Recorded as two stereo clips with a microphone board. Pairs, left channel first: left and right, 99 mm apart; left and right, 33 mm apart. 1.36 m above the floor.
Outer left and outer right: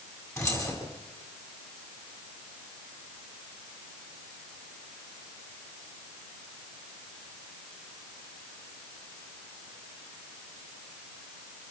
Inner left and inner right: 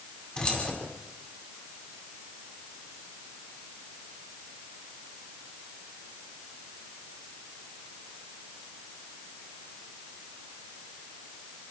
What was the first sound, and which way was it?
Keys jangling, 30° left (ahead or behind).